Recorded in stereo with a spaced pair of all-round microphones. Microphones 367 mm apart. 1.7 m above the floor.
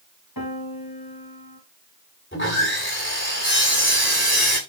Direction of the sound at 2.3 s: 35° left (ahead or behind).